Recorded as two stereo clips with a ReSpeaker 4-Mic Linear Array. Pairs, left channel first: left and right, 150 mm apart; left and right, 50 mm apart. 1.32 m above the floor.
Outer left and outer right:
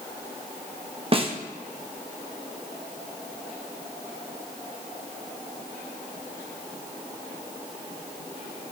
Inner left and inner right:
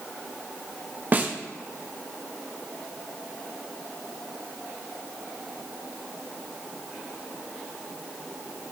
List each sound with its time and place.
1.1 s a snare drum: 35° right (ahead or behind), 1.1 m